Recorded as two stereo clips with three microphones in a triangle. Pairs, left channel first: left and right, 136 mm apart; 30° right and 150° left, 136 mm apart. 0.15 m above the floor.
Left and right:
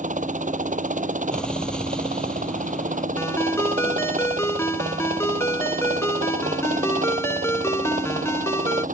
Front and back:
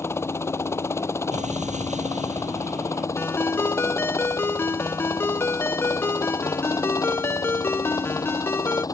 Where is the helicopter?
100° right; by 8.9 s 95° right.